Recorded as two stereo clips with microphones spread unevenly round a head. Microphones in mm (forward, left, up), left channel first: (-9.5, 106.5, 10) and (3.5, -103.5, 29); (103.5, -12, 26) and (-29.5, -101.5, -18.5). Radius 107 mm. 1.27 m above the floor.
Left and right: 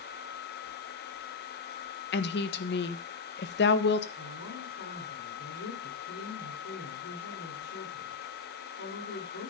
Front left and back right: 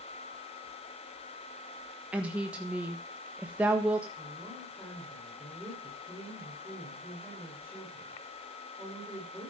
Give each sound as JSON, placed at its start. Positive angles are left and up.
{"t": 2.1, "sound": "a woman speaking", "azimuth_deg": 135, "distance_m": 1.4}
{"t": 4.2, "sound": "a woman speaking", "azimuth_deg": 115, "distance_m": 4.0}